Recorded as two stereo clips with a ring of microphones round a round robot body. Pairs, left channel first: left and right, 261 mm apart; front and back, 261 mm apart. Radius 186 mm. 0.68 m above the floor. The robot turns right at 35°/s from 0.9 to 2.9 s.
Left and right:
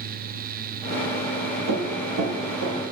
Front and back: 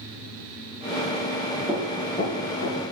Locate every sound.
1.7 s running footsteps: 100° right, 4.5 m; by 2.8 s 50° right, 4.5 m